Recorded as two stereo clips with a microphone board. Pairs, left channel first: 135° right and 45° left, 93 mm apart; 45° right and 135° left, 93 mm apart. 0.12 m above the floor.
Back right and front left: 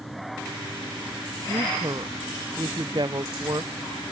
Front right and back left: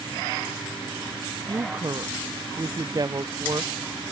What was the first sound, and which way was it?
A woman speaking, 90° left.